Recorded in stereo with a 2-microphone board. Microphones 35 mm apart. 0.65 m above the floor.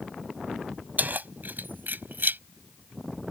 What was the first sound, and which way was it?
Keys jangling, 60° right (ahead or behind).